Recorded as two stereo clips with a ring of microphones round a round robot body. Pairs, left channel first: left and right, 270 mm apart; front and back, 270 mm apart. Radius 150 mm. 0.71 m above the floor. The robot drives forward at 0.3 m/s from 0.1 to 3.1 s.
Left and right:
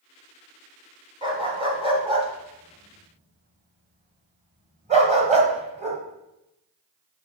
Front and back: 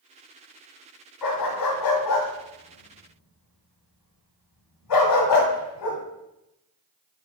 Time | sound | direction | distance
1.2 | a dog barking | 20° right | 2 m